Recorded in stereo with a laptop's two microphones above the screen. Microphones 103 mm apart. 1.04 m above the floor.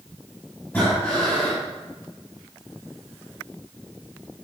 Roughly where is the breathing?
Centre.